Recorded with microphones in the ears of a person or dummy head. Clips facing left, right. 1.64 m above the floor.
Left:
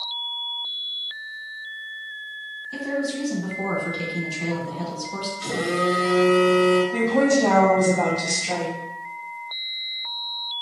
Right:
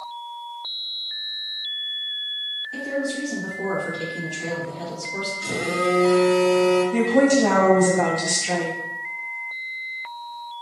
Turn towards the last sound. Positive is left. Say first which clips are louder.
# right 2 dB
turn(degrees=-15)  # may be behind; listen again after turning